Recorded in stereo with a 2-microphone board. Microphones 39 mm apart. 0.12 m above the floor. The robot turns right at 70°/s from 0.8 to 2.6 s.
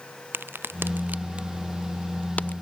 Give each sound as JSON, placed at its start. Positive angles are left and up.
{"t": 0.3, "sound": "a crack", "side_deg": -70}